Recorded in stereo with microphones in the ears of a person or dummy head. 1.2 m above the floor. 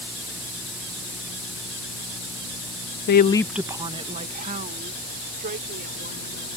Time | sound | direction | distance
3.1 | a woman speaking | 60° left (ahead or behind) | ?